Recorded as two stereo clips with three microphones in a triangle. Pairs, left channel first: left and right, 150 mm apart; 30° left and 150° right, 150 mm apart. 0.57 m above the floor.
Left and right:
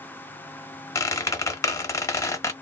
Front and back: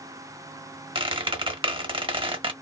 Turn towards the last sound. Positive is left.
turn(degrees=160)